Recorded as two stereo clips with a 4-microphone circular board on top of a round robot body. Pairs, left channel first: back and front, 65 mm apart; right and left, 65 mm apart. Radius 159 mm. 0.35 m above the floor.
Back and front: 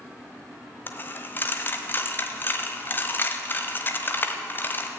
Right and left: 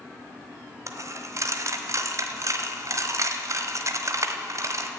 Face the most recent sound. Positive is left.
turn(degrees=125)